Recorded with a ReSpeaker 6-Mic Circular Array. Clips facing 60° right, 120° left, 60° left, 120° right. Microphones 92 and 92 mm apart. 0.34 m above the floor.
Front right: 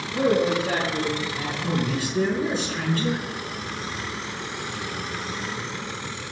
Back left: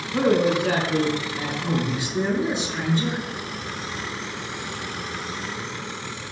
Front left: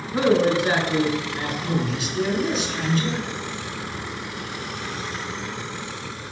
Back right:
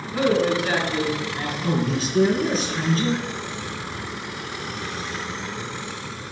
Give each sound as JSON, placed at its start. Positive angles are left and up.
{"t": 0.1, "sound": "a man speaking", "azimuth_deg": 120, "distance_m": 4.0}
{"t": 1.6, "sound": "a man speaking", "azimuth_deg": -170, "distance_m": 4.5}